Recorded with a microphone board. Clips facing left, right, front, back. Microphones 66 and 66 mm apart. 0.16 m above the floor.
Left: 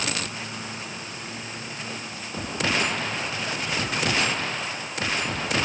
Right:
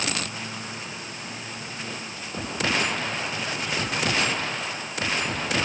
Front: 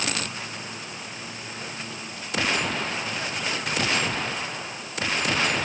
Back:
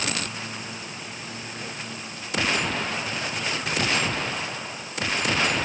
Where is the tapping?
I don't hear tapping.